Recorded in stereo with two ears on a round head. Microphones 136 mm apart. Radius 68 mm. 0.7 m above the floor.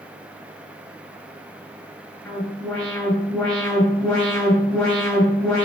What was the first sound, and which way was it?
An alarm, 5° left (ahead or behind).